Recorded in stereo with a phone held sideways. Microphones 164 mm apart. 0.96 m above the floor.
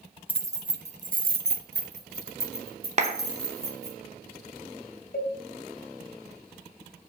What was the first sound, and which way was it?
Keys jangling, 10° right (ahead or behind).